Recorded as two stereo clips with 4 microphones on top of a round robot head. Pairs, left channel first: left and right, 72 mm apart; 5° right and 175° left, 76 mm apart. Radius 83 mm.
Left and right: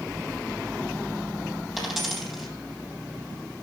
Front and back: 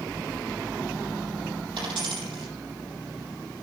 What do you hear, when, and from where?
1.8 s a dropped coin: 175° right, 6 m